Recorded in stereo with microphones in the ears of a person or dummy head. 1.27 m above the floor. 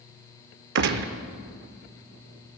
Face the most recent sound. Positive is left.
turn(degrees=-55)  # may be behind; listen again after turning